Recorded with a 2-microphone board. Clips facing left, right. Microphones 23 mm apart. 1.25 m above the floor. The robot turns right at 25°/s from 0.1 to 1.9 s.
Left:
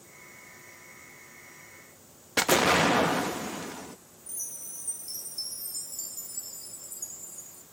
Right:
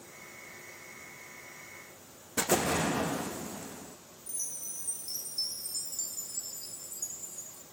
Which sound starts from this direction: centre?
A chime, at 4.3 s.